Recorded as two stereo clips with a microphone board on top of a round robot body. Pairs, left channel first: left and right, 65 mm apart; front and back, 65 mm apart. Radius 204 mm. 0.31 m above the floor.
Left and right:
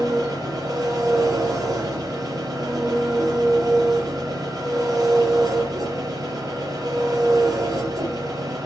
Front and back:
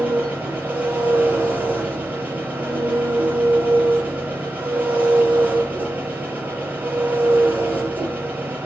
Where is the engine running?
115° right, 5.5 m.